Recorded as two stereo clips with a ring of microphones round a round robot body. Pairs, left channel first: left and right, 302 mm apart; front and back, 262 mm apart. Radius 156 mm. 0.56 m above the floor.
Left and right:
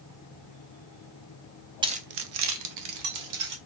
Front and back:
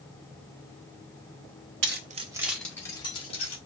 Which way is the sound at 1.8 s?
160° right.